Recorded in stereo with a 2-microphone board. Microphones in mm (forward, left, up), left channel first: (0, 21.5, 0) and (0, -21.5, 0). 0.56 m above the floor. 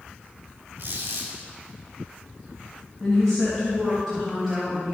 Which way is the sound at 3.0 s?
5° left (ahead or behind).